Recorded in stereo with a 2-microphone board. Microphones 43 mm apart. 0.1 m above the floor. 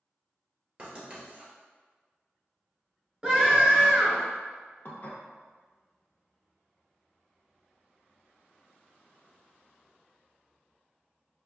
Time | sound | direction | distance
0.8 | writing | 25° right (ahead or behind) | 1.9 m
3.2 | a scream | 15° right (ahead or behind) | 1.1 m
4.8 | dishes clattering | 55° left (ahead or behind) | 1.4 m